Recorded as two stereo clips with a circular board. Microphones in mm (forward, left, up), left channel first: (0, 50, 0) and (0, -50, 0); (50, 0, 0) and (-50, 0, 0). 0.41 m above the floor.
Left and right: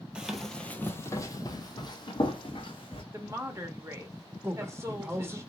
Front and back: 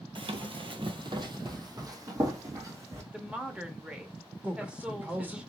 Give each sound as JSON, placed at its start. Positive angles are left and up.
{"t": 0.1, "sound": "running footsteps", "azimuth_deg": -170, "distance_m": 0.6}
{"t": 3.1, "sound": "a woman speaking", "azimuth_deg": -110, "distance_m": 0.9}
{"t": 4.4, "sound": "a man speaking", "azimuth_deg": -125, "distance_m": 0.9}